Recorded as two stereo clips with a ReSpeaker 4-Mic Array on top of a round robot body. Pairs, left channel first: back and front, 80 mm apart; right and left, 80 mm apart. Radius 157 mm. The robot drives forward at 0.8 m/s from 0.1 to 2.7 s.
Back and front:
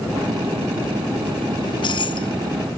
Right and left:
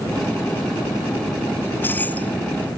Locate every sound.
1.6 s keys jangling: 155° right; by 2.4 s 165° right